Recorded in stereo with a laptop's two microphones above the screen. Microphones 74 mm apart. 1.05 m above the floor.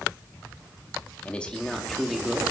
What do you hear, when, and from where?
1.2 s a man speaking: 15° left (ahead or behind), 2.5 m; by 2.4 s 10° right (ahead or behind), 3 m